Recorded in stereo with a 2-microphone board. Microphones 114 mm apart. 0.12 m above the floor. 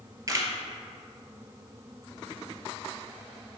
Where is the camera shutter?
30° right (ahead or behind), 0.6 m.